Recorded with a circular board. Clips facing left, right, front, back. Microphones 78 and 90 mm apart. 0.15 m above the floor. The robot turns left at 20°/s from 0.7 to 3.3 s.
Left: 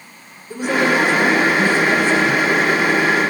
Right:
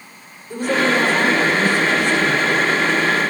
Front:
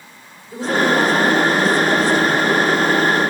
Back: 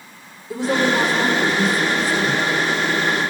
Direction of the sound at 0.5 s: 165° left.